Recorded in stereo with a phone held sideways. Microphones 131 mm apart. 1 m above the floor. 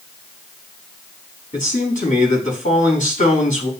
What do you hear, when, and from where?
1.5 s a man speaking: 75° left (ahead or behind), 4.5 m